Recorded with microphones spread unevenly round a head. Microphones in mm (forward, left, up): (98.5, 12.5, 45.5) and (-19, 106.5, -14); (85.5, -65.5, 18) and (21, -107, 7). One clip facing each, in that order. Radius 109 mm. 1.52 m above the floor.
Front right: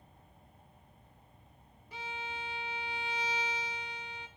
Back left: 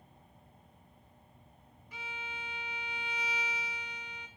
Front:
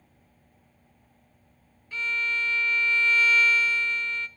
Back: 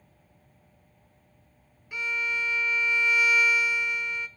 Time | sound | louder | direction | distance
1.9 | a violin | front right 4 dB, front 1 dB | 65° right | 0.6 m